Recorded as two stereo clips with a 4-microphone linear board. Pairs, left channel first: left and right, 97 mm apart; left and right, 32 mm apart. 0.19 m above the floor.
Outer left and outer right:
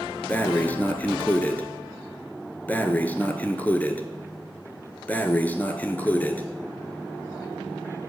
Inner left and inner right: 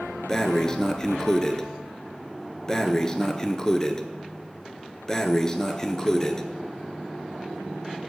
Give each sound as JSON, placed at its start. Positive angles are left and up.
{"t": 0.3, "sound": "breathing", "side_deg": 20, "distance_m": 0.5}